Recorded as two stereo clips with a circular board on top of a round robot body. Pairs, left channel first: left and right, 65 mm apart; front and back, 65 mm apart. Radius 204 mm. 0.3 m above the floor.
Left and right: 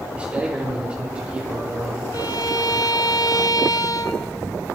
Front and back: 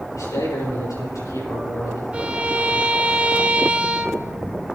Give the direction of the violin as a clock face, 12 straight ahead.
8 o'clock.